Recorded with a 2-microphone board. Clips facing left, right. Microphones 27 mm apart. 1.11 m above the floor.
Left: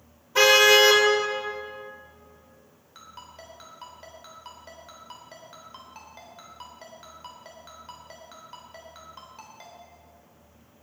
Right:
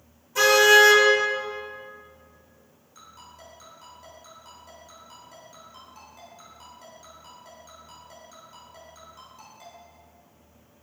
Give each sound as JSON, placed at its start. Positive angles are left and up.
{"t": 0.3, "sound": "a car horn", "side_deg": 40, "distance_m": 2.5}
{"t": 3.0, "sound": "a ringtone", "side_deg": 45, "distance_m": 3.5}